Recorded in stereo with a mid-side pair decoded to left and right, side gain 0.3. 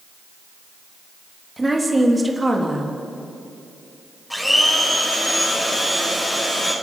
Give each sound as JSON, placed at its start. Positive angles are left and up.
{"t": 1.6, "sound": "a woman speaking", "azimuth_deg": -20, "distance_m": 3.5}
{"t": 4.3, "sound": "a blender", "azimuth_deg": 10, "distance_m": 6.0}